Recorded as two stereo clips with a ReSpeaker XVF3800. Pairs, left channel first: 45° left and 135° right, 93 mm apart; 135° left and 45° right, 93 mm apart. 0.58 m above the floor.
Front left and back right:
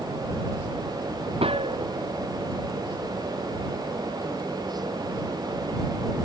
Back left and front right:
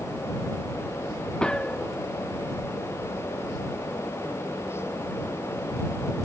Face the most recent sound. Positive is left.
turn(degrees=-145)